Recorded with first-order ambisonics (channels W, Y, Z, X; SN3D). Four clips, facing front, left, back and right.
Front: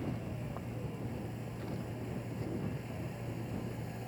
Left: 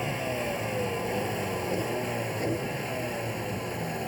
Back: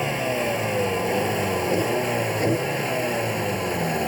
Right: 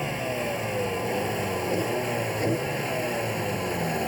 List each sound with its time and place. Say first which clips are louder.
0.0 s a vehicle: right 2 dB, back 17 dB; 175° right; by 4.1 s 160° right